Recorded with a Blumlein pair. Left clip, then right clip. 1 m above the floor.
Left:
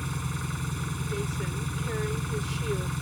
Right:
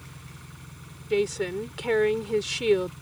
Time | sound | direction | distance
0.0 | an engine running | 60° left | ?
1.1 | a woman speaking | 60° right | ?